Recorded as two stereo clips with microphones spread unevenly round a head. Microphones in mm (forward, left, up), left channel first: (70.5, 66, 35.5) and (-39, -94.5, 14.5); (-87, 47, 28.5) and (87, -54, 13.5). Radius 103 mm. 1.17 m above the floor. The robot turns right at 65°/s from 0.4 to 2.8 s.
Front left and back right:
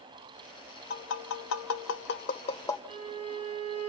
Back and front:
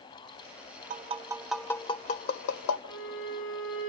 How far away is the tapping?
About 0.5 m.